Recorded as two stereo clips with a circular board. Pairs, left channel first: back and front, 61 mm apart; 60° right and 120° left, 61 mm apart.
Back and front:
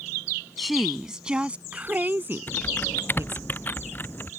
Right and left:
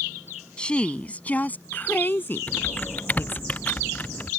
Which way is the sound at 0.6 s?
95° right.